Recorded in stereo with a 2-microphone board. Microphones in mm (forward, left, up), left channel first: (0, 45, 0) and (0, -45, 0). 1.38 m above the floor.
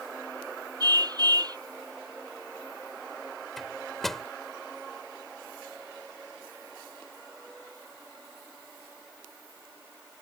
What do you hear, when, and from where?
0.8 s a car horn: 50° right (ahead or behind)
3.6 s a microwave: centre (ahead or behind)